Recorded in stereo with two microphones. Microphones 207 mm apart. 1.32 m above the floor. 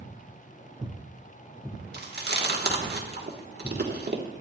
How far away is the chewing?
About 1.3 m.